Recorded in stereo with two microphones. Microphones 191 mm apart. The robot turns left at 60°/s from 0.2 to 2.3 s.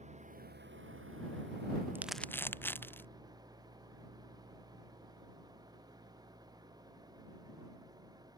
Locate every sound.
0.0 s an engine running: 35° right; by 8.4 s 160° right
1.9 s crumpling: 10° right (ahead or behind); by 3.1 s 10° left (ahead or behind)